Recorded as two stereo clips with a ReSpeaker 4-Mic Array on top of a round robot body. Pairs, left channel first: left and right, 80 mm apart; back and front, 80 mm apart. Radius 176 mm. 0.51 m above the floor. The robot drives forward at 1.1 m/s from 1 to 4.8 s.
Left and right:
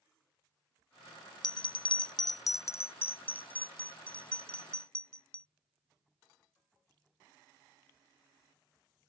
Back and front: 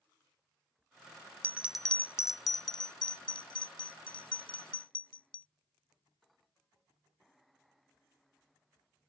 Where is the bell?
60° left; by 5.5 s 170° left.